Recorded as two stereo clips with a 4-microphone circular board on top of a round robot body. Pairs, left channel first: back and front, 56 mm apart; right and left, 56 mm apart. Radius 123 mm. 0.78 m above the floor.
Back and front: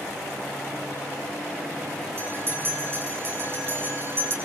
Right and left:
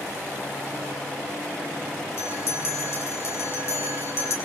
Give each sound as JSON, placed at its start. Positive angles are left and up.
{"t": 2.2, "sound": "a bell", "azimuth_deg": -45, "distance_m": 6.5}